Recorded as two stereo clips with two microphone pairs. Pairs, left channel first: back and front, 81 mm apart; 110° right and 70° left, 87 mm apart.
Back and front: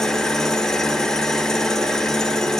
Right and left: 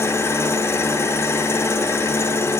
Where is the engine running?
105° right, 1.0 m.